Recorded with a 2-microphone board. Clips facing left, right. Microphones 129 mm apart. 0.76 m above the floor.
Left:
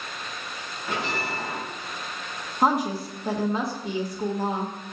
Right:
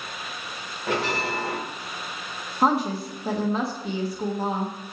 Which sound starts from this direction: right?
A bell, at 0.9 s.